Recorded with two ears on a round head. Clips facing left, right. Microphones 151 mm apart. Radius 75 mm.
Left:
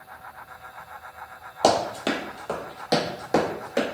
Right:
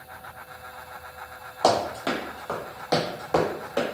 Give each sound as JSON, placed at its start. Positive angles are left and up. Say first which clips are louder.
{"t": 1.6, "sound": "running footsteps", "louder": "left 1 dB", "side_deg": 25, "distance_m": 0.8}